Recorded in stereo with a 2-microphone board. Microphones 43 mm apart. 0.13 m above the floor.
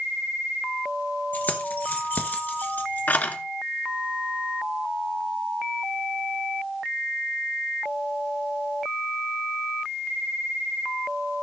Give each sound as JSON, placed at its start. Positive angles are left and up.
{"t": 1.3, "sound": "keys jangling", "side_deg": 40, "distance_m": 1.9}